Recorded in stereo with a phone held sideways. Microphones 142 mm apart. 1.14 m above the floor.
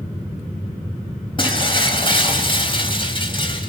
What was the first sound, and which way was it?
Breaking glass, 35° left (ahead or behind).